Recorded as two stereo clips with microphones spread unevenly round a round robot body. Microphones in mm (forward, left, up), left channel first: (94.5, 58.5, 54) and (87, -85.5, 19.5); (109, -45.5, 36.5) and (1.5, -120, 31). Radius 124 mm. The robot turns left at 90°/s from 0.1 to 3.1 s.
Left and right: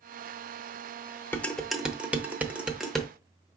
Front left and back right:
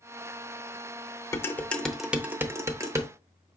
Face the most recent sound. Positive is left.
turn(degrees=-165)